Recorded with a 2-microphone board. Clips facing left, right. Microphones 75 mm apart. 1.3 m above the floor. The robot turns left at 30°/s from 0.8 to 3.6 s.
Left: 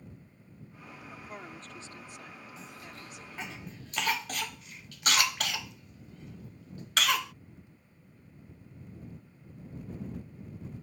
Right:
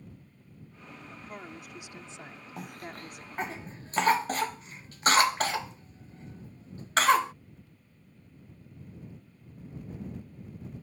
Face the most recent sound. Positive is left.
turn(degrees=-35)  # may be behind; listen again after turning